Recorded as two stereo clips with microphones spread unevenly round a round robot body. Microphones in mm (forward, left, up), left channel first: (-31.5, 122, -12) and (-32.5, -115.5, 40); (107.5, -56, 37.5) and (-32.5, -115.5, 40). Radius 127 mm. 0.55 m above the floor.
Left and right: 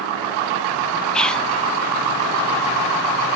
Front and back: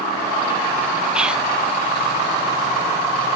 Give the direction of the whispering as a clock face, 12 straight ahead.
8 o'clock.